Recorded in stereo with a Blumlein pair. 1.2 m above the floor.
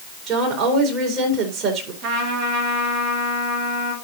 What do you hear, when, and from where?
0.3 s a woman speaking: 30° right, 3 m
2.0 s a trumpet: 40° right, 1.9 m